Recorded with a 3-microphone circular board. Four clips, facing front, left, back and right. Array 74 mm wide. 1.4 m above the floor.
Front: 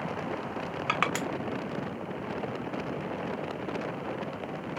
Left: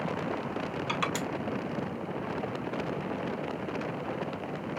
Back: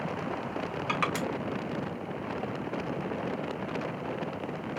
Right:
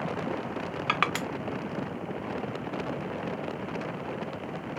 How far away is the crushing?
About 0.9 m.